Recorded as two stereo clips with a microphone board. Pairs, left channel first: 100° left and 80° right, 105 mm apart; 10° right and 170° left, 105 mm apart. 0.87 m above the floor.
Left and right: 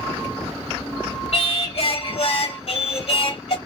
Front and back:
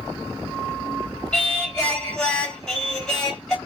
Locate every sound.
1.3 s singing: 70° left, 2.5 m